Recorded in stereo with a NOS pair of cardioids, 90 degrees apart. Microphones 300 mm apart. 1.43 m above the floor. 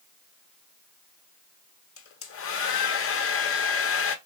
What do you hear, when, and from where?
2.0 s a hair dryer: 50° left, 0.6 m